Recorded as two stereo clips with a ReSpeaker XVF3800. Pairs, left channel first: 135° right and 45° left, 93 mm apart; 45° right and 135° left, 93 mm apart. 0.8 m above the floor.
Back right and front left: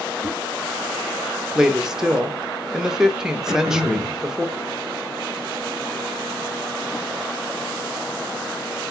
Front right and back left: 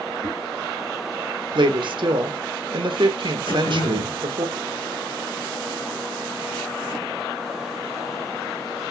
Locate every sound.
0.2 s a whoosh: 145° left, 1.9 m
1.6 s a woman speaking: 130° left, 0.7 m
3.5 s throat clearing: 25° right, 2.5 m